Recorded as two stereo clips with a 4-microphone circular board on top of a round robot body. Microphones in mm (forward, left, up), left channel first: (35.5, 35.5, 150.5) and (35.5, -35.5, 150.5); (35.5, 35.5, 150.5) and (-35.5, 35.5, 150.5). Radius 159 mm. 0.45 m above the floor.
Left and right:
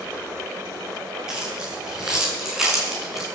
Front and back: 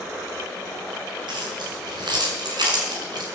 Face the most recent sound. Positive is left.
turn(degrees=-175)